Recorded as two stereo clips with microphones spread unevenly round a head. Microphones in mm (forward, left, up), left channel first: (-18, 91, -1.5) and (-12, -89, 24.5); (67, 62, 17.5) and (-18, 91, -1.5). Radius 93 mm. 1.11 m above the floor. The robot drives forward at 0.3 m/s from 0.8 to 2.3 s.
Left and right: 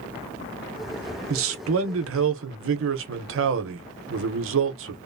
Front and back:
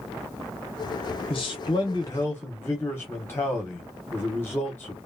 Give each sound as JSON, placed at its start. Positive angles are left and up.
{"t": 1.3, "sound": "a man speaking", "azimuth_deg": -70, "distance_m": 0.7}